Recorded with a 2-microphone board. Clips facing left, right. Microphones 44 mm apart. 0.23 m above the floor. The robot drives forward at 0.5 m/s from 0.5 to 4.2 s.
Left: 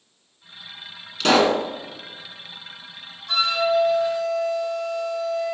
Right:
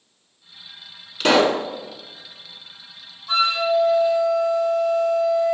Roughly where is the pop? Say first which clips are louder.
Right 1 dB; centre.